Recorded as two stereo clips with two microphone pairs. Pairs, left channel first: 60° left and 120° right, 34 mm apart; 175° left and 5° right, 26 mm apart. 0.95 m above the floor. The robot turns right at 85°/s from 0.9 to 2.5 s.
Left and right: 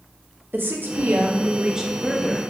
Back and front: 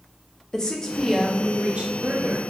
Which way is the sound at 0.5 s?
120° right.